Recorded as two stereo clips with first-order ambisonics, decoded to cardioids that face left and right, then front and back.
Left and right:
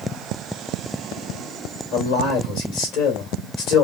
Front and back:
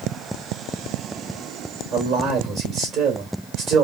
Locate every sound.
1.9 s a man speaking: 120° left, 2.5 m